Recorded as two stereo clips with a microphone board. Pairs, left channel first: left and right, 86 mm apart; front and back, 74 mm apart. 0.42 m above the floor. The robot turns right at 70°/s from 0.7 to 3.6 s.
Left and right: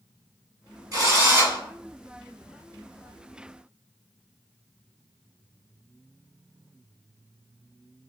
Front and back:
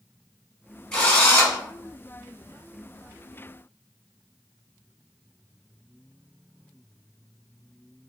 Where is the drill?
80° right, 1.7 m; by 1.6 s 35° right, 1.7 m.